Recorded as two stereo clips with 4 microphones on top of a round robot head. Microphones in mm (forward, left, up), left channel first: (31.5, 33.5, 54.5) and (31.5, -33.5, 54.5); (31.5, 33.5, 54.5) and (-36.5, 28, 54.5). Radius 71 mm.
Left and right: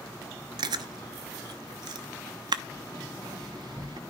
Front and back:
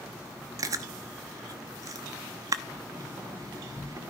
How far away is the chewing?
About 0.8 m.